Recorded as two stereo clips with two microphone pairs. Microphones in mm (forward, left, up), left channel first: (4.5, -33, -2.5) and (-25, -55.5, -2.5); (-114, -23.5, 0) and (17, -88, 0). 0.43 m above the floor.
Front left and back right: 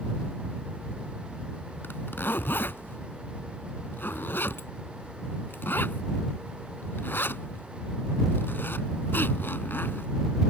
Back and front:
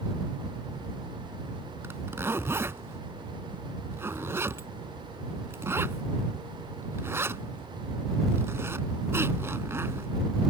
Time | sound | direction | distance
1.8 | a zipper | 45° left | ?